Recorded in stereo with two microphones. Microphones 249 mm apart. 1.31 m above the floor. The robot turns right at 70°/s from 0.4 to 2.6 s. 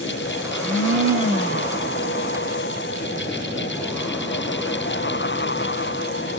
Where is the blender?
110° right, 1.8 m; by 1.8 s 15° right, 1.8 m.